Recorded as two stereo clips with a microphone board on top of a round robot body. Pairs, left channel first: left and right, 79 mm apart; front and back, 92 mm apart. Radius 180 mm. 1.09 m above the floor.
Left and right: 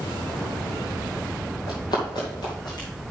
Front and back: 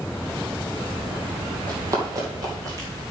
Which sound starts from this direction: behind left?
Running footsteps, at 1.7 s.